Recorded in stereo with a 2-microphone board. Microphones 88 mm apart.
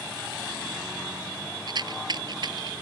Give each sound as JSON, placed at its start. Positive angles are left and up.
{"t": 1.7, "sound": "a rattle", "side_deg": -55}